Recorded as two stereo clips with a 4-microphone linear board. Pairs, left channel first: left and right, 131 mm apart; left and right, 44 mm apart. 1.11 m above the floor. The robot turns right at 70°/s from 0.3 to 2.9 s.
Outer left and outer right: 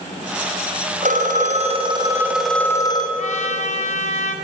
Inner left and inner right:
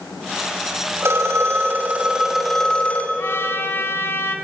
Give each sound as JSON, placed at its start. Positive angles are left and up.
{"t": 1.0, "sound": "a phone ringing", "azimuth_deg": -100, "distance_m": 4.0}
{"t": 3.2, "sound": "a trumpet", "side_deg": 70, "distance_m": 3.0}